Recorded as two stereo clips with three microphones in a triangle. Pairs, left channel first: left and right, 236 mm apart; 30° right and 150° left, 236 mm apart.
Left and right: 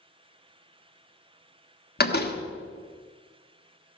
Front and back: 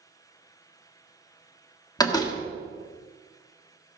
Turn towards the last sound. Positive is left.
turn(degrees=40)